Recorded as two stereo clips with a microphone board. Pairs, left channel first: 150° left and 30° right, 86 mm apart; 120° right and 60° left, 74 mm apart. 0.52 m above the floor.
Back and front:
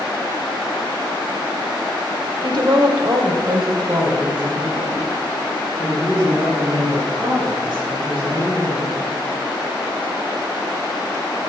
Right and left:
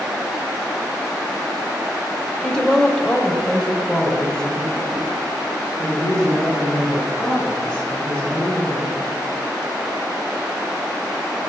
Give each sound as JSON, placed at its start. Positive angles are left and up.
{"t": 2.4, "sound": "a woman speaking", "azimuth_deg": -40, "distance_m": 1.3}